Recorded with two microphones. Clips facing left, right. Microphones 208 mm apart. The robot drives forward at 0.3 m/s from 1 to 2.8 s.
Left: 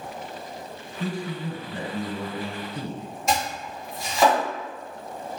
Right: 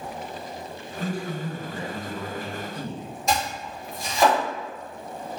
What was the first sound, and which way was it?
A man speaking, 35° left (ahead or behind).